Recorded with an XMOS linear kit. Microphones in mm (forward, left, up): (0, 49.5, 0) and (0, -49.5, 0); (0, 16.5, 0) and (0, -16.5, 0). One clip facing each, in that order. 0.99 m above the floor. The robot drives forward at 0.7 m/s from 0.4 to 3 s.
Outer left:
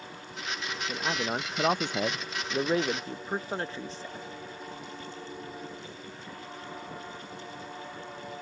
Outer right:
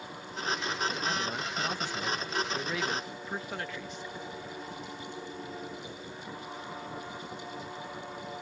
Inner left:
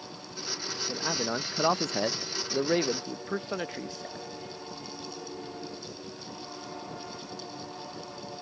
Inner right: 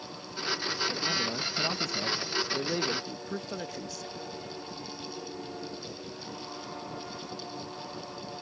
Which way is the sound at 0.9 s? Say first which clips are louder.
Outer left 2 dB, even; 30° left (ahead or behind).